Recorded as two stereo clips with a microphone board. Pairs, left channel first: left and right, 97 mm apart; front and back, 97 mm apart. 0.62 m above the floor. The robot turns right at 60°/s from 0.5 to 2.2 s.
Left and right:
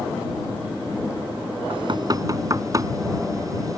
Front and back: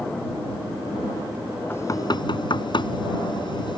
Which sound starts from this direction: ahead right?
Knocking, at 1.7 s.